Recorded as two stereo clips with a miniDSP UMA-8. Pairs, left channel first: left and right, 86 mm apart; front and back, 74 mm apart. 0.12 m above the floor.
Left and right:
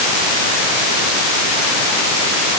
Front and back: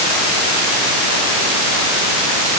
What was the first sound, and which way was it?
Only background noise.